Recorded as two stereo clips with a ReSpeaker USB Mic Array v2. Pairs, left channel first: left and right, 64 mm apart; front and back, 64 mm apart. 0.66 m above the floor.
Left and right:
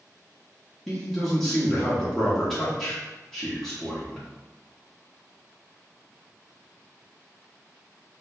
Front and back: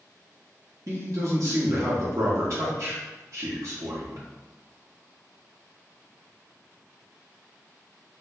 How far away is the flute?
I don't hear a flute.